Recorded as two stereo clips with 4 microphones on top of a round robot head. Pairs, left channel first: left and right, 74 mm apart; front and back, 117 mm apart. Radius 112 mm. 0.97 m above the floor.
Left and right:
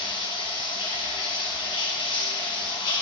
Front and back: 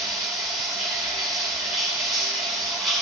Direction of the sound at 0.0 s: 90° left.